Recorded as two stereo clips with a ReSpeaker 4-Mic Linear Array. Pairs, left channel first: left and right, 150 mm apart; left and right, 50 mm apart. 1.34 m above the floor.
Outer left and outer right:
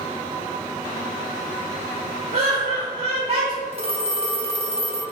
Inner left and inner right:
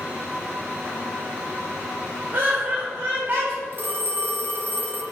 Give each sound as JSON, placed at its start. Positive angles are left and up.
{"t": 2.3, "sound": "laughter", "side_deg": -40, "distance_m": 0.7}
{"t": 3.7, "sound": "a phone ringing", "side_deg": -45, "distance_m": 0.5}